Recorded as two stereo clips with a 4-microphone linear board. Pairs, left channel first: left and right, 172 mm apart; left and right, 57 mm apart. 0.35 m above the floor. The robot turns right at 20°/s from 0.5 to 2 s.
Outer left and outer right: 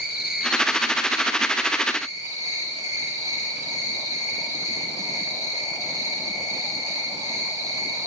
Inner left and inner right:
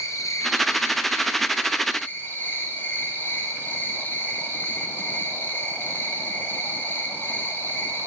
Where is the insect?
110° left, 5 m; by 8.1 s 140° left, 5 m.